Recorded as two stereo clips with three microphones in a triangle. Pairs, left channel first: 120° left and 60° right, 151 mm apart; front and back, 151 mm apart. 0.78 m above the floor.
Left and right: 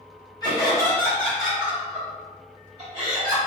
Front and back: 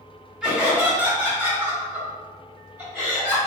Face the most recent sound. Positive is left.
turn(degrees=-110)